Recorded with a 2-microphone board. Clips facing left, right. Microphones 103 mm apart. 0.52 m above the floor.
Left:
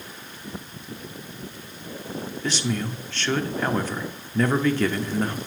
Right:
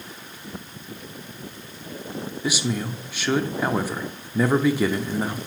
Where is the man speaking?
10° right (ahead or behind), 0.7 m.